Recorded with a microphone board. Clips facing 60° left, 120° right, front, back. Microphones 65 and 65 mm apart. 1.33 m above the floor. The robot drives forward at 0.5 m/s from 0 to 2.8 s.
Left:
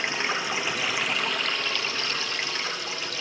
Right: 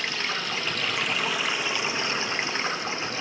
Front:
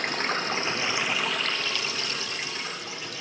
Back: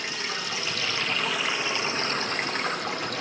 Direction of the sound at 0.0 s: 5° right.